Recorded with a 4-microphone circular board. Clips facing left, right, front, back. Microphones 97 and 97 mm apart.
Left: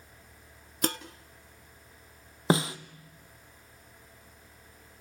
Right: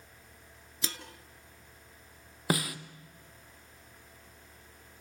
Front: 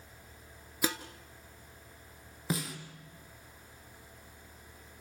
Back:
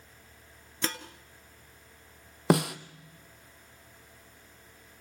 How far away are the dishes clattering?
About 1.4 m.